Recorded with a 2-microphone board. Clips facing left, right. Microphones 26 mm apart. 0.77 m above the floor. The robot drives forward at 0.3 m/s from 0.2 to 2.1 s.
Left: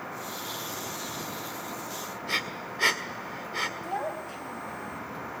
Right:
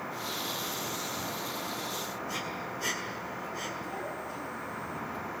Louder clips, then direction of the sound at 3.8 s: Left 4 dB; 80° left.